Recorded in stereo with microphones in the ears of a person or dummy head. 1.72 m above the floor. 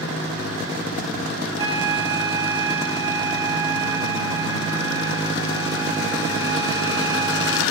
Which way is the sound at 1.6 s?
25° right (ahead or behind).